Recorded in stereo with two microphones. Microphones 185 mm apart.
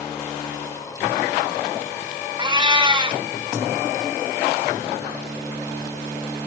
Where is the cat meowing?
25° right (ahead or behind), 0.7 m.